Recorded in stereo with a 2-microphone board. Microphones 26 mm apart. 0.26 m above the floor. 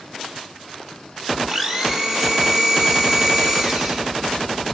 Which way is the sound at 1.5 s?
25° right (ahead or behind).